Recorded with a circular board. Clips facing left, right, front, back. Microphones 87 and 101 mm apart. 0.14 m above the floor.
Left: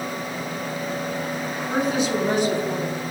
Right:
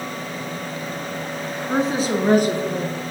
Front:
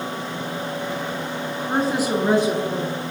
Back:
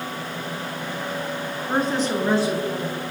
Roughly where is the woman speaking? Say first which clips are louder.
Right 2 dB, front 1 dB; right.